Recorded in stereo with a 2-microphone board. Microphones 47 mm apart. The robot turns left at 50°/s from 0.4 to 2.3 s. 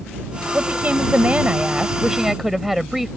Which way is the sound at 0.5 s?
85° right.